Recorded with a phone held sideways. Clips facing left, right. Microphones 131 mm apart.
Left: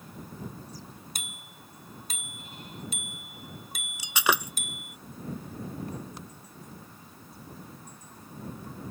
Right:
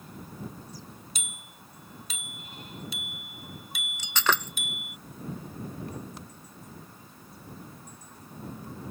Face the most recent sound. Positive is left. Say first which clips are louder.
# left 1 dB
turn(degrees=10)  # may be behind; listen again after turning